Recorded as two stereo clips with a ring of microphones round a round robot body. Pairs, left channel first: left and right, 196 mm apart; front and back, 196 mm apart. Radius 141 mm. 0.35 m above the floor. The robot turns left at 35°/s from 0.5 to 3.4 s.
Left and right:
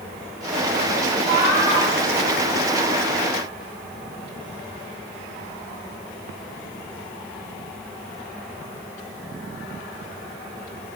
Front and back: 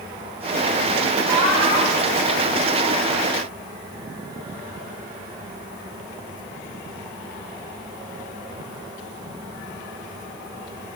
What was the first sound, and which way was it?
Laughter, 55° right.